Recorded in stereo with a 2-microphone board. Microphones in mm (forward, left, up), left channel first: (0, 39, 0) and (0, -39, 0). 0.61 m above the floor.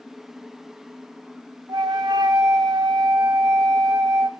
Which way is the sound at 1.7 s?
85° right.